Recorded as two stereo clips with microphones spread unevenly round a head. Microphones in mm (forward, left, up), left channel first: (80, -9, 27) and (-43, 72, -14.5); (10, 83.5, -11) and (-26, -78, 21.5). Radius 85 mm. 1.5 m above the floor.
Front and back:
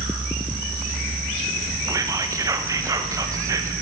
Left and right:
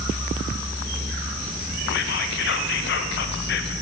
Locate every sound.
1.9 s whispering: 85° left, 0.6 m